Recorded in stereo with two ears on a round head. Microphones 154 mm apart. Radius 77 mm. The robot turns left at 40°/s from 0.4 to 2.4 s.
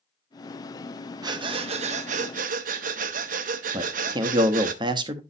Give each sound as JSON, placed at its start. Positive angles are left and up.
{"t": 1.2, "sound": "breathing", "azimuth_deg": -30, "distance_m": 0.8}
{"t": 3.7, "sound": "a man speaking", "side_deg": -25, "distance_m": 0.9}